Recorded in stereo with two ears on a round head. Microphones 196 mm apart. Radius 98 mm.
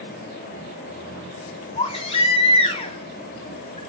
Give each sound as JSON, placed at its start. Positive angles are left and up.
{"t": 1.8, "sound": "a baby crying", "side_deg": 30, "distance_m": 3.5}